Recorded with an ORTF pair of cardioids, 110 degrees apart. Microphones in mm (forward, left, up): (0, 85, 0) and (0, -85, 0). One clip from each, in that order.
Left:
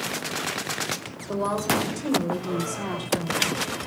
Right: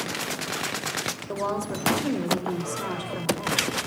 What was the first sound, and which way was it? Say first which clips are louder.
A woman speaking: left 7 dB; 5° left.